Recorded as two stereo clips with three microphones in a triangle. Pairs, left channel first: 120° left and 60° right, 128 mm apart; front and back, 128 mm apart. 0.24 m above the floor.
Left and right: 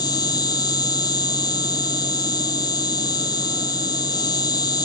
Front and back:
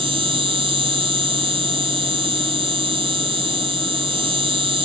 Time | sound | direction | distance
0.0 | an insect | 165° left | ?